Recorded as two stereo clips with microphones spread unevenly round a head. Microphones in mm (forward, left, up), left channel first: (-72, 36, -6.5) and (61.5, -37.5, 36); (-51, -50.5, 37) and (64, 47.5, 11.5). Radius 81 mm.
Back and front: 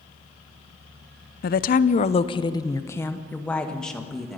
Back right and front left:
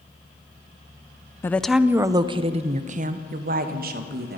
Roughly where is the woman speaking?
Behind left.